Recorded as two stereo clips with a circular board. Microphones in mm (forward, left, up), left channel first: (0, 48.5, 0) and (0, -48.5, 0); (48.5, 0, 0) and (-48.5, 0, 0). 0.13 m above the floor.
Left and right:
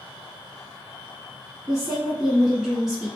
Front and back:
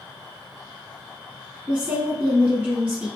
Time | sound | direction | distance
1.7 | a woman speaking | 165° right | 1.2 m